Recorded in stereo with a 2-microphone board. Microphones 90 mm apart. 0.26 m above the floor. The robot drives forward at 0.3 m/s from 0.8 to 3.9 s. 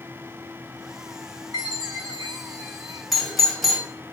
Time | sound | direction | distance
1.5 | a chime | 45° right (ahead or behind) | 2 m
3.1 | a doorbell | centre (ahead or behind) | 1.6 m